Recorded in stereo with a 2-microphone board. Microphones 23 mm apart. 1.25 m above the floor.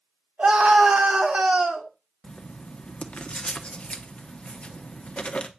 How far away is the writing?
About 1.1 m.